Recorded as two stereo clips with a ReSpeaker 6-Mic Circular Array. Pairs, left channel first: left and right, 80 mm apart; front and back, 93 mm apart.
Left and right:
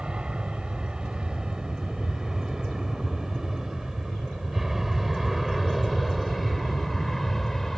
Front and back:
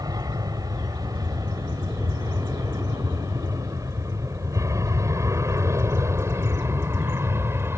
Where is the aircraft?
165° right; by 7.8 s 170° left.